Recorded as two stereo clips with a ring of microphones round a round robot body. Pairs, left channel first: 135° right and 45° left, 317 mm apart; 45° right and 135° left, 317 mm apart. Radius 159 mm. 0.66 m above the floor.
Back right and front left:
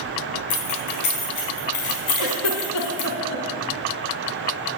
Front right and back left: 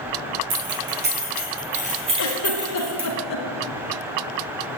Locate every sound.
0.5 s keys jangling: 170° right, 6 m; by 3.1 s 140° right, 5 m
2.2 s a giggle: 95° right, 3 m